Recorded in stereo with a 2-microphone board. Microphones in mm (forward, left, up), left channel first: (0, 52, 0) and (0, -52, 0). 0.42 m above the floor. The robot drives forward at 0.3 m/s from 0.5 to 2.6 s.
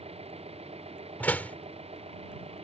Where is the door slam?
15° left (ahead or behind).